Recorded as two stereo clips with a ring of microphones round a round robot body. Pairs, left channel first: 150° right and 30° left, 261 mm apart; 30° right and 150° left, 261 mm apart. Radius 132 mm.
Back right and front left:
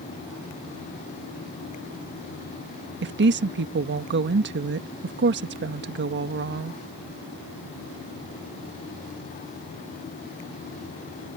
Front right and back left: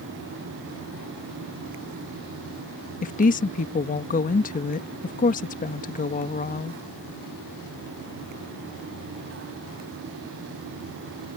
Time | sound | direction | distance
3.0 | a woman speaking | 15° left | ?